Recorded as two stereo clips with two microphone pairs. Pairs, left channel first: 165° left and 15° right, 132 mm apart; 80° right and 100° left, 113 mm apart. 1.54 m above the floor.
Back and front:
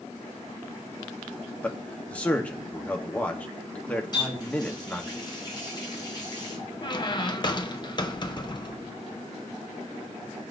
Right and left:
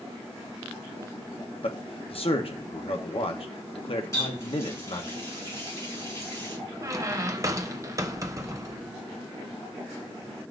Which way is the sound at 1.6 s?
115° right.